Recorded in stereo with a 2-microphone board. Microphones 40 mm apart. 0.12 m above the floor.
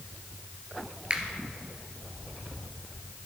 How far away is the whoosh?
I don't hear a whoosh.